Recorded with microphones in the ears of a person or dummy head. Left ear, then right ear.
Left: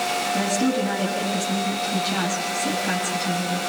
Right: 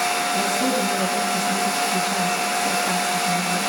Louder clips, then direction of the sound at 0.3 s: Right 2 dB; 25° right (ahead or behind).